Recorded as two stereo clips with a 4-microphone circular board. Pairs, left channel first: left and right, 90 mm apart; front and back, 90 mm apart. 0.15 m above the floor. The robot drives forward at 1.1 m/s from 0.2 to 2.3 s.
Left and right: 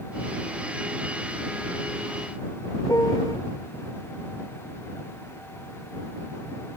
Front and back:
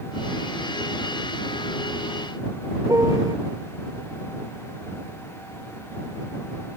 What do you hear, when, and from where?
2.9 s a piano: 135° left